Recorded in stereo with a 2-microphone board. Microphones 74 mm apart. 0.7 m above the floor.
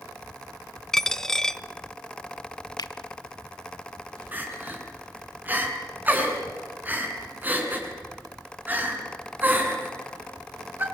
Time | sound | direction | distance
0.9 | a dropped coin | 5° left (ahead or behind) | 0.7 m
2.8 | a finger snap | 70° left (ahead or behind) | 1.2 m
4.3 | crying | 25° right (ahead or behind) | 4.5 m